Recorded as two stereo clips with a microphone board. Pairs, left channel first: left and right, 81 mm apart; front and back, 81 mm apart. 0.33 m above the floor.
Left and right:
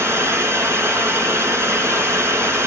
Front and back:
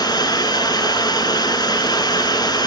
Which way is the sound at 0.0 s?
35° right.